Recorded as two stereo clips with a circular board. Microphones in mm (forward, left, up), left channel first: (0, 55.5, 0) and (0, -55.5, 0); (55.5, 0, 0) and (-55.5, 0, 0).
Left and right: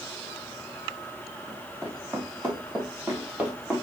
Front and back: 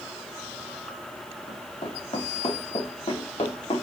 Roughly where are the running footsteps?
Ahead.